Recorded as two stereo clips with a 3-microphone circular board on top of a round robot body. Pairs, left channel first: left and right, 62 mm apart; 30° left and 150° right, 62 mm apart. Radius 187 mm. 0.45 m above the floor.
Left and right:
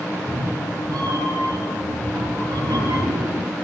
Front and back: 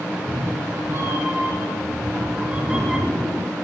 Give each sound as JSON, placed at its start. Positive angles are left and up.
{"t": 0.1, "sound": "a cat meowing", "azimuth_deg": -105, "distance_m": 5.0}